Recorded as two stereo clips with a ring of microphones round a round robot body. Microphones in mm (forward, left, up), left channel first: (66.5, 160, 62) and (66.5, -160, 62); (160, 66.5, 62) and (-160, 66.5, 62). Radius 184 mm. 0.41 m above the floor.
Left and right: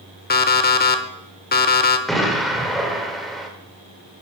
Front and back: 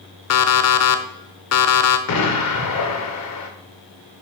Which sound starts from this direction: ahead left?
An alarm clock, at 0.3 s.